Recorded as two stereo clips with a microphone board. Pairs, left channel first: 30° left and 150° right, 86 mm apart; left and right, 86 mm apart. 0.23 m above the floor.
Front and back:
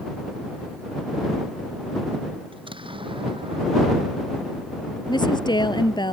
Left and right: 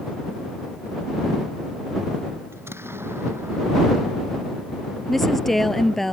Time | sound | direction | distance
2.5 | an explosion | 150° right | ?
5.1 | a woman speaking | 5° left | ?